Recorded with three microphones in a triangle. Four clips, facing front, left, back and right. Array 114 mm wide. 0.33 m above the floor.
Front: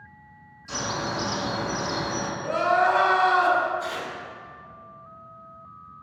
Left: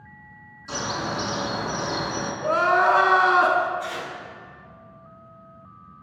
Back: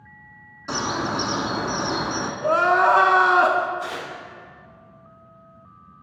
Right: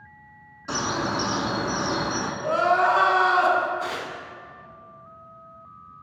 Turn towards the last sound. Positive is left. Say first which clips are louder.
# right 1 dB, back 1 dB
turn(degrees=-115)